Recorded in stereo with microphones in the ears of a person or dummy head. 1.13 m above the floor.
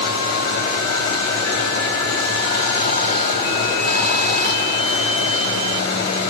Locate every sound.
0.0 s running water: 50° left (ahead or behind), 1.7 m